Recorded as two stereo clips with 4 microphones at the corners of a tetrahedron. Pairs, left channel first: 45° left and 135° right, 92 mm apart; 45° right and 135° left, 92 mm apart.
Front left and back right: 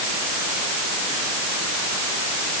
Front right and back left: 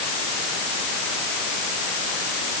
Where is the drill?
I don't hear a drill.